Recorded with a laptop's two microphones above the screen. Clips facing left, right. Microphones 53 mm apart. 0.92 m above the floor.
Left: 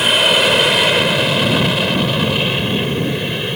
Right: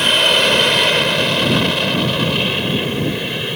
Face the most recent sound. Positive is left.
turn(degrees=0)  # may be behind; listen again after turning